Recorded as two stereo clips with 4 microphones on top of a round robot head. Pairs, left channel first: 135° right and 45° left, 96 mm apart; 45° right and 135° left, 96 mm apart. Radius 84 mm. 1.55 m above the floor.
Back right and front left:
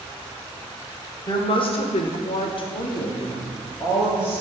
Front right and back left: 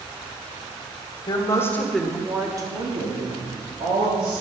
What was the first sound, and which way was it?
A woman speaking, 95° right.